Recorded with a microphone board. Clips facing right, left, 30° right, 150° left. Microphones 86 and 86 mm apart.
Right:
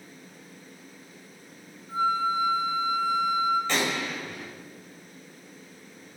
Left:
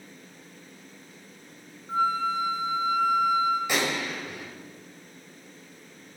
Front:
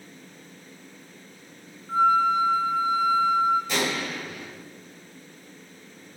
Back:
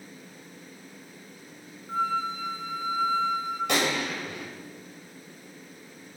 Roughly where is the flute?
Ahead left.